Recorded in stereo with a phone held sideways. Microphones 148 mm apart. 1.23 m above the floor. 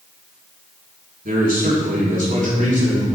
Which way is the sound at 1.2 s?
75° right (ahead or behind).